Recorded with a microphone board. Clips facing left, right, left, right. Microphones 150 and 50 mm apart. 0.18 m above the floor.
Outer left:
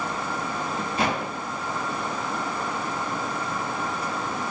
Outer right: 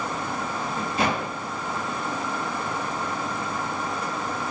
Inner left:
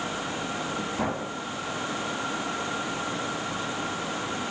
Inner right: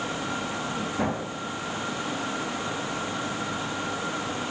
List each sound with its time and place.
Only background noise.